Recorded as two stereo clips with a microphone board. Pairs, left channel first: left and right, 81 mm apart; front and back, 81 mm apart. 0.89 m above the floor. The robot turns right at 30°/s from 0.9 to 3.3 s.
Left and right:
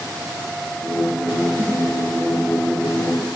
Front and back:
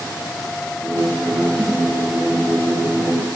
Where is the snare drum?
145° right, 4.5 m; by 1.8 s 140° right, 4.5 m.